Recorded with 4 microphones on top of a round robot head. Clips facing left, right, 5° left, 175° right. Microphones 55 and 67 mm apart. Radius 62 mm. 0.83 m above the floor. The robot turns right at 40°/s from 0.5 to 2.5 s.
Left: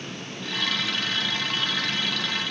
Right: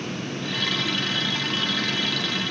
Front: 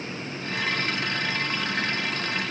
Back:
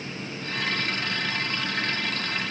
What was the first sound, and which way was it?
Only background noise.